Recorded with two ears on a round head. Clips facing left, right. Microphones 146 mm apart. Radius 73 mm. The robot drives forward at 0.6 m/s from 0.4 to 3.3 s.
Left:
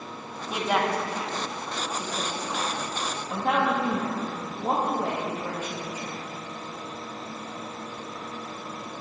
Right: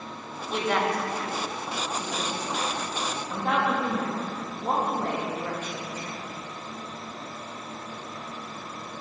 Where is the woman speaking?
5° left (ahead or behind), 1.3 m; by 6.2 s 10° left (ahead or behind), 1.0 m.